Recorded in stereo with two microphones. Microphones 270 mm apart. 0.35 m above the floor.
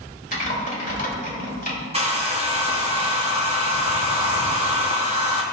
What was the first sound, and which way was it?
Typing on a keyboard, 30° left (ahead or behind).